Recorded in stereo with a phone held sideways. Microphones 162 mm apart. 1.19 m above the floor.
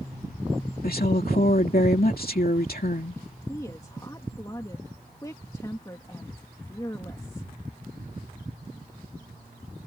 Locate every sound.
0.8 s a woman speaking: 65° left (ahead or behind)
3.5 s a woman speaking: 20° left (ahead or behind)